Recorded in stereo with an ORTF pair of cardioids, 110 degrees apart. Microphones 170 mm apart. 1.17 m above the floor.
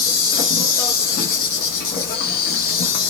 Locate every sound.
0.0 s an insect: 70° left, 0.8 m